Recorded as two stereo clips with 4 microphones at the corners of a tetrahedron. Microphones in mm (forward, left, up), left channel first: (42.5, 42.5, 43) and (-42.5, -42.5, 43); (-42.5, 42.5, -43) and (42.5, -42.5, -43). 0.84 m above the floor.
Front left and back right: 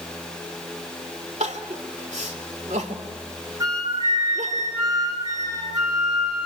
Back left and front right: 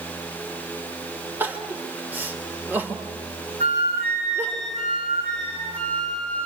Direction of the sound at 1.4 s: 120° right.